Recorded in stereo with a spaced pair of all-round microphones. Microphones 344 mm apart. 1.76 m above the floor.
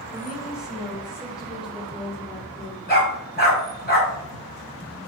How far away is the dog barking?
About 5.5 m.